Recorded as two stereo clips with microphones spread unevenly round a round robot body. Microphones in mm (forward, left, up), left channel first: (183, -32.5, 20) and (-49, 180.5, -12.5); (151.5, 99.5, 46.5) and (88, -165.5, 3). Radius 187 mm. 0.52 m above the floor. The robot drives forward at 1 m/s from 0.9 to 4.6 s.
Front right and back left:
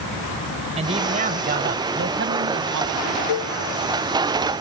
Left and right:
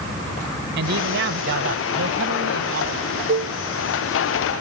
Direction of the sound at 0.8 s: 150° right.